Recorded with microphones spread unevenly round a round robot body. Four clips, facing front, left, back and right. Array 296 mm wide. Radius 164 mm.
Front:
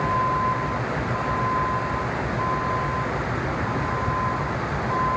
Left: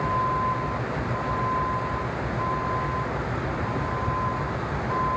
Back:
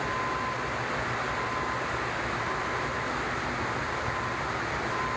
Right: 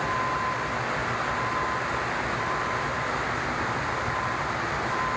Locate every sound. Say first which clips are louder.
0.0 s a vehicle: left 3 dB, front 8 dB; 10° left